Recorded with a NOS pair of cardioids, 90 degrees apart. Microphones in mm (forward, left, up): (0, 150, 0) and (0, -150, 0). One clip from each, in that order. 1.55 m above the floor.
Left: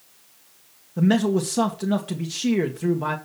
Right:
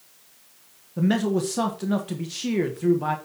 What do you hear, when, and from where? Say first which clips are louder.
1.0 s a man speaking: left 2 dB; 10° left, 1.2 m